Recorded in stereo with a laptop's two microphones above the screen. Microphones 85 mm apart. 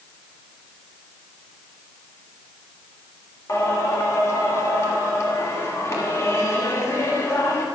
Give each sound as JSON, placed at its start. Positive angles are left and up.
{"t": 3.5, "sound": "singing", "side_deg": 35, "distance_m": 1.6}